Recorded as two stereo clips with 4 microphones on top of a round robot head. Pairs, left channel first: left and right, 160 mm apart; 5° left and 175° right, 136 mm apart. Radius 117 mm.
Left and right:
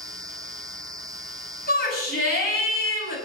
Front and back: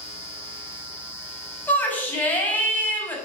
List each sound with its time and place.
1.7 s a shout: 80° left, 5.5 m